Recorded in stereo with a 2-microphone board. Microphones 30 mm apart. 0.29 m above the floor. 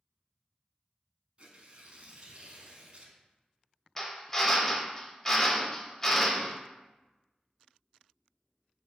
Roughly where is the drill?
Centre.